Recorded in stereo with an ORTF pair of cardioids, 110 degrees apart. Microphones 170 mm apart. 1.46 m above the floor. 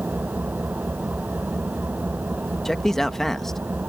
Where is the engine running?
10° right.